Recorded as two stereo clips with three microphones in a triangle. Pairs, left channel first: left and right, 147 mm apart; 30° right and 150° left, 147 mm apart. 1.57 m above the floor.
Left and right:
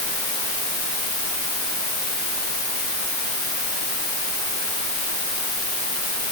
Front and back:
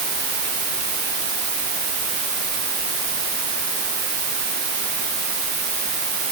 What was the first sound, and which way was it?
Only background noise.